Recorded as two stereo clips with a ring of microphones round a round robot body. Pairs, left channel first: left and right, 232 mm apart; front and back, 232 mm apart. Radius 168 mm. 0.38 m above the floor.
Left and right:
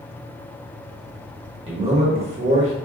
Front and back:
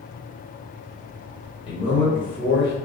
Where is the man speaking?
50° right, 1.4 m.